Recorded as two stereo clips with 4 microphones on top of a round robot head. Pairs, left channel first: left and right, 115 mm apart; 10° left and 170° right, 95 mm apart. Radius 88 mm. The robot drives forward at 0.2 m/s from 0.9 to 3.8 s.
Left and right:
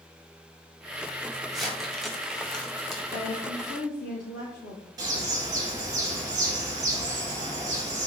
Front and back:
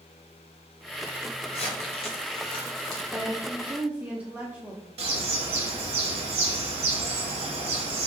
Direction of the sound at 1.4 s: Straight ahead.